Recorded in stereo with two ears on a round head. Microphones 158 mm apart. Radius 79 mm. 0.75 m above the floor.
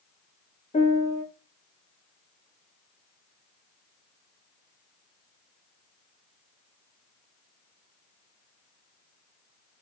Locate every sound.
0.7 s a piano: 35° left (ahead or behind), 1.3 m